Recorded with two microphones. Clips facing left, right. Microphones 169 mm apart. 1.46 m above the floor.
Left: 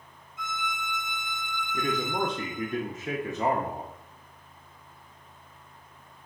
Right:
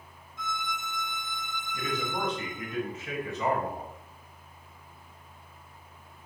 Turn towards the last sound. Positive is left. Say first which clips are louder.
# left 4 dB
turn(degrees=45)  # may be behind; listen again after turning